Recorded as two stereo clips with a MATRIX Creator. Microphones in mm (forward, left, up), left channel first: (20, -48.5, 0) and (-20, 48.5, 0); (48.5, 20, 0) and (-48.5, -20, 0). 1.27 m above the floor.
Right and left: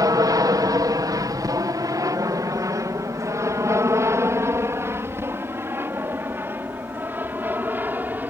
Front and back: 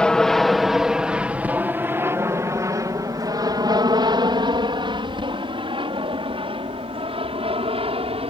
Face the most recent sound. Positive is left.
turn(degrees=-175)